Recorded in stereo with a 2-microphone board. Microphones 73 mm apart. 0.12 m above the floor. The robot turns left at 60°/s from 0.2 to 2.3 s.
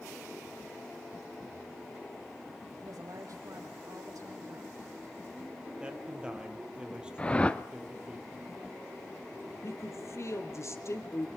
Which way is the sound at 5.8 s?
15° right (ahead or behind).